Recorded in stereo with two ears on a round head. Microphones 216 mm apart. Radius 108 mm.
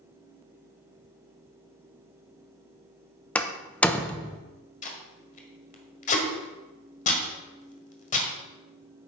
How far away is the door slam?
About 0.7 m.